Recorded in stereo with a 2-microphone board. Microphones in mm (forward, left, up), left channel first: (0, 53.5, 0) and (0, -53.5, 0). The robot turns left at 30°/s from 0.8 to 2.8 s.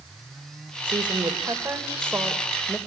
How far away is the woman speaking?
About 2.0 m.